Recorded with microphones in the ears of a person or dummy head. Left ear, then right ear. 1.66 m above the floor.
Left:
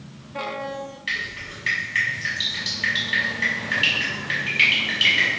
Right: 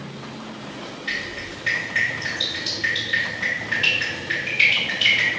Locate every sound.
1.1 s dripping: 10° left (ahead or behind), 1.3 m